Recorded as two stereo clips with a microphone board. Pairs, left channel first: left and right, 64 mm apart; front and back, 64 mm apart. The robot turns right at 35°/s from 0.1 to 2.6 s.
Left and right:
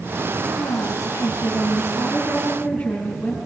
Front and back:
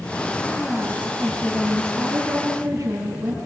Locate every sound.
0.5 s a woman speaking: 75° left, 3.5 m; by 3.4 s 150° left, 3.5 m